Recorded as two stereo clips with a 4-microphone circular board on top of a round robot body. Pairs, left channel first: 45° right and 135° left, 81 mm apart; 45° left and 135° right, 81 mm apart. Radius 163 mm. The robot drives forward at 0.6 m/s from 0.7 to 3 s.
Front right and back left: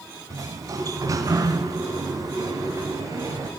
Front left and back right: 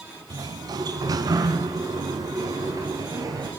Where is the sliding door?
175° right, 1.0 m; by 3.5 s straight behind, 2.5 m.